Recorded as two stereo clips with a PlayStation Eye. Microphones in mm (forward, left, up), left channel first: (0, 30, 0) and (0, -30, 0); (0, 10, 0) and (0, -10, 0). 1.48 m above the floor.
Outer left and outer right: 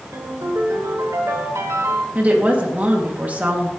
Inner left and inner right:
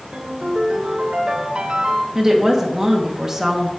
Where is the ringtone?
70° right (ahead or behind), 3 m.